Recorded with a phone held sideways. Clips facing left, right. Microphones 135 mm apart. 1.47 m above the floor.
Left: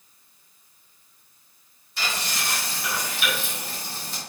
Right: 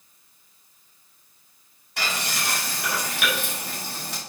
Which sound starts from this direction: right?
Frying, at 2.0 s.